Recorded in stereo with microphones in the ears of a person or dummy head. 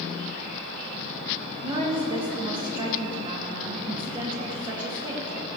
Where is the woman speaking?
15° right (ahead or behind), 2.5 m.